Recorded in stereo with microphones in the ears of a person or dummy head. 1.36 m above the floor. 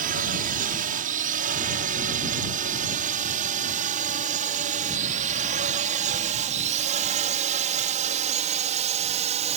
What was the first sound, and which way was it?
A drone, 45° right (ahead or behind).